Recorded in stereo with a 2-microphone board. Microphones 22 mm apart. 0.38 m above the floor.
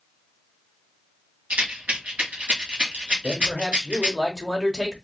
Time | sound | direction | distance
1.5 | a rattle | 65° right (ahead or behind) | 1.3 m
3.2 | a man speaking | centre (ahead or behind) | 1.0 m